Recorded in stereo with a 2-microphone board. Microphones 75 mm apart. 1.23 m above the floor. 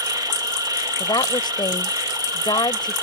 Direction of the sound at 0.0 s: 60° right (ahead or behind).